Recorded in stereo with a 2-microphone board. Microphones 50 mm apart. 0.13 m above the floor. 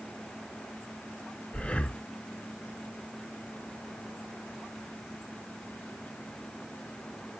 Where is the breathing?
25° left (ahead or behind), 0.5 m.